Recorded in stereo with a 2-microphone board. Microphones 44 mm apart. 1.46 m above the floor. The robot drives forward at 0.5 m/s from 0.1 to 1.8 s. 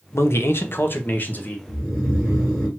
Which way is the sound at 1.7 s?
10° right (ahead or behind).